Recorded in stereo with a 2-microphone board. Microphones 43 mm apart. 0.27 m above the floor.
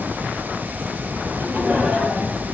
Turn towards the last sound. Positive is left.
turn(degrees=-40)  # may be behind; listen again after turning